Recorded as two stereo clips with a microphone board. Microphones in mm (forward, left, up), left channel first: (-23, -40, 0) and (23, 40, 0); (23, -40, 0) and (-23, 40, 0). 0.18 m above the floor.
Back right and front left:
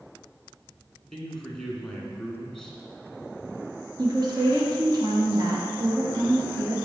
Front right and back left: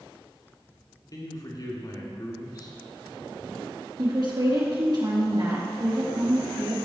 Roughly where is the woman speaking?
Left.